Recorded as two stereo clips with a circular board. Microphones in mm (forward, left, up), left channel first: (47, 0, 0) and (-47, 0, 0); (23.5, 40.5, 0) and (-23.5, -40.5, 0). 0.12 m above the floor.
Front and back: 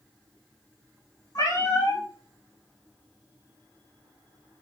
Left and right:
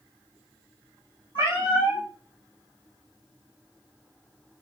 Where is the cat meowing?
50° left, 1.8 m.